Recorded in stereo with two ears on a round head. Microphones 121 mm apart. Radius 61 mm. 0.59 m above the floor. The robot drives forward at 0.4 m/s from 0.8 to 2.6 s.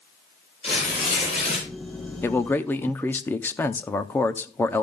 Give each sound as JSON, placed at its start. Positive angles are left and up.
{"t": 0.6, "sound": "tearing paper", "side_deg": 45, "distance_m": 7.5}
{"t": 2.2, "sound": "a man speaking", "side_deg": 15, "distance_m": 0.6}